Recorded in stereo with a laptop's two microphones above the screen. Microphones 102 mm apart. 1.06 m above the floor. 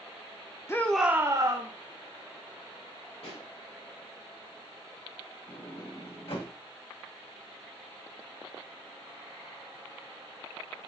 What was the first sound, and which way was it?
A shout, 25° left (ahead or behind).